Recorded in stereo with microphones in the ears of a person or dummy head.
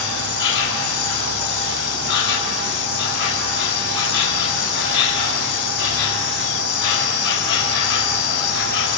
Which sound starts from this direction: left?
An insect, at 0.0 s.